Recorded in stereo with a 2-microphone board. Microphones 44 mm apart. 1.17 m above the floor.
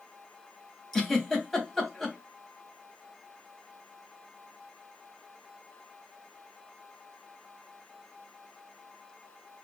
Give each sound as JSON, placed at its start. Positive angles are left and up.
{"t": 0.9, "sound": "a giggle", "side_deg": 0, "distance_m": 3.0}